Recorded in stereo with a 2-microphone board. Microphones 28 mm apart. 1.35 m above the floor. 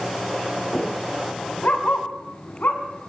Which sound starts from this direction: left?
A dog barking, at 1.6 s.